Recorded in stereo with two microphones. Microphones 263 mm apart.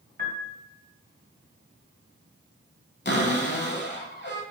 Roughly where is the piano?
Right.